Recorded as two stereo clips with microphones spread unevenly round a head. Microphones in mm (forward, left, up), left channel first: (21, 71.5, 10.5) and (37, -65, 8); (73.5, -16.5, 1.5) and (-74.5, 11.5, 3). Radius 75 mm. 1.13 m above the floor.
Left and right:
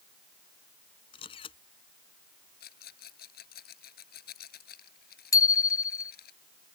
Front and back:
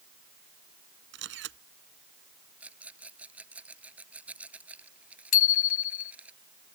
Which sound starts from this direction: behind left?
A camera shutter, at 1.1 s.